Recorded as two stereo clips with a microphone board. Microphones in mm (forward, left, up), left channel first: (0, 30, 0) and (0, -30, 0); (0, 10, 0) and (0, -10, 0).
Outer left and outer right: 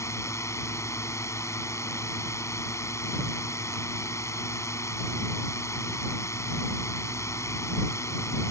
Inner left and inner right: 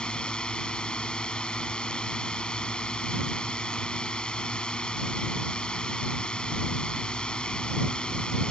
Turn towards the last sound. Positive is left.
turn(degrees=60)  # may be behind; listen again after turning